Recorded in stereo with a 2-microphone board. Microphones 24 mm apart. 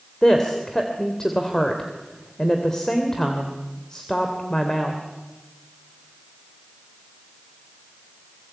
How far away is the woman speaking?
About 2.5 m.